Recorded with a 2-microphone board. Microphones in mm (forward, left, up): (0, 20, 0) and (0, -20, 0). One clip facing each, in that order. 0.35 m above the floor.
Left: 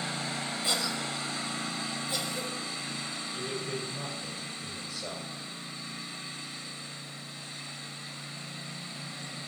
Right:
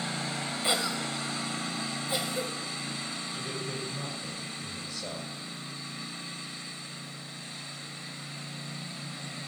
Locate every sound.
0.6 s a cough: 25° right (ahead or behind), 1.4 m
3.3 s a man speaking: 5° left (ahead or behind), 6 m